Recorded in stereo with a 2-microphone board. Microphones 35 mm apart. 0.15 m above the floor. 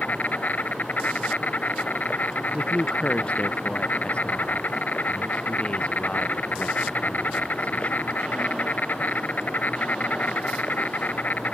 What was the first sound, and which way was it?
An insect, 55° left (ahead or behind).